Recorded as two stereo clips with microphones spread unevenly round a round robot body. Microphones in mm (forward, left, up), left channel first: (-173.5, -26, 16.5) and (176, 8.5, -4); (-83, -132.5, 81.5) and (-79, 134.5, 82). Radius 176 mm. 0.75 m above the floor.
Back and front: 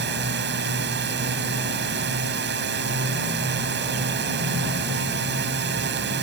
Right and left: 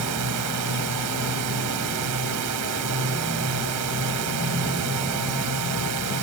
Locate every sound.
0.0 s a drone: 65° left